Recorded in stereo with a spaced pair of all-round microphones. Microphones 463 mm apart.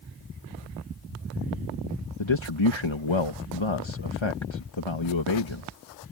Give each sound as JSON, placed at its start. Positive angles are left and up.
{"t": 2.2, "sound": "a man speaking", "side_deg": 75}